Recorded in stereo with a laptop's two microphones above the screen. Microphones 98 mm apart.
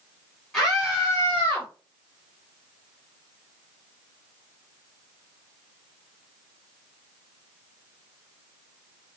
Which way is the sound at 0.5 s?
15° left (ahead or behind).